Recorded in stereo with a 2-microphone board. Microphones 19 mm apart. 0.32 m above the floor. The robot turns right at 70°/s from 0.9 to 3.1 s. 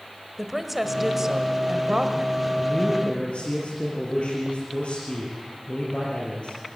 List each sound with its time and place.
0.4 s a woman speaking: 165° right, 1.6 m; by 2.5 s 55° right, 1.6 m
2.6 s a man speaking: 35° left, 6 m; by 6.6 s 75° left, 6 m